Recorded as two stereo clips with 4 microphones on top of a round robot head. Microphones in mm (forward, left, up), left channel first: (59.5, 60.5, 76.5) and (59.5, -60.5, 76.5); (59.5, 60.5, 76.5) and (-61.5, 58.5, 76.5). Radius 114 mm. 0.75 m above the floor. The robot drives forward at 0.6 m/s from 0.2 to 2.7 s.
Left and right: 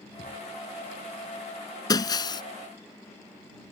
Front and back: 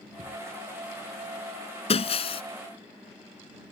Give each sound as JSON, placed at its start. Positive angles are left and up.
{"t": 0.2, "sound": "a thud", "azimuth_deg": 135}
{"t": 1.9, "sound": "breaking glass", "azimuth_deg": 35}